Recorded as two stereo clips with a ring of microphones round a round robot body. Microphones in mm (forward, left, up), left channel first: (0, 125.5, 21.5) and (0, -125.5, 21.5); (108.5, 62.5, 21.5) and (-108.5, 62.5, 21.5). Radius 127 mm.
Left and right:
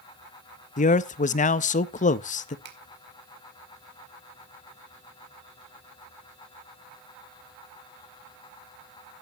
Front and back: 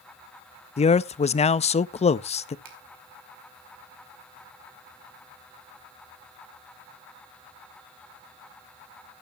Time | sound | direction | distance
0.8 | a man speaking | 45° left | 0.5 m
2.6 | a finger snap | 140° right | 2 m